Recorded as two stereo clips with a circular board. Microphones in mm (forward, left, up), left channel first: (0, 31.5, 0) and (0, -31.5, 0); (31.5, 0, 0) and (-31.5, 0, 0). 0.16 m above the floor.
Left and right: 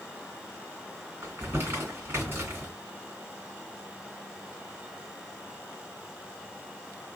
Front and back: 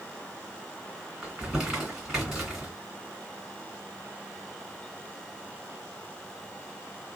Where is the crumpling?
95° right, 2 m.